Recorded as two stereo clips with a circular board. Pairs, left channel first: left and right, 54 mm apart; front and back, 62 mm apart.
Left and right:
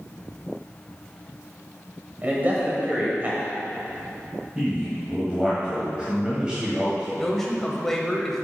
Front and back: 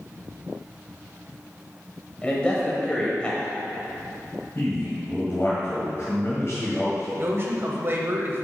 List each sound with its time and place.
2.2 s a man speaking: 60° right, 1.1 m
4.5 s a man speaking: 20° right, 1.7 m
7.2 s a man speaking: 170° left, 1.1 m